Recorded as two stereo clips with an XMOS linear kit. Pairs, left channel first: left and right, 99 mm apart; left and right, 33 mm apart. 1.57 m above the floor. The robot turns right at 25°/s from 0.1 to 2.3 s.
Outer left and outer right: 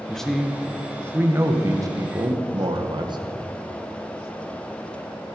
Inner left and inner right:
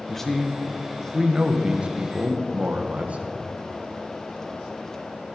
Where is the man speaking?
170° left, 1.4 m; by 3.2 s 135° right, 1.4 m.